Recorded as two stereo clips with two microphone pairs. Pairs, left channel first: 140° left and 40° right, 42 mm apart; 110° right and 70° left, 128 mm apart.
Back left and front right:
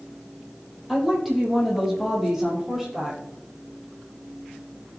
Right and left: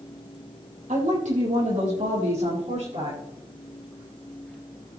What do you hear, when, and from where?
0.9 s a woman speaking: 50° left, 5 m; by 3.2 s 40° left, 6 m